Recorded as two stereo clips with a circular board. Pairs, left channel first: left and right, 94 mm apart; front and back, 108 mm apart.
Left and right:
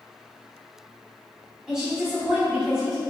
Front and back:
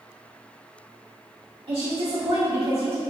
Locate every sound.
1.7 s a woman speaking: 175° right, 2.5 m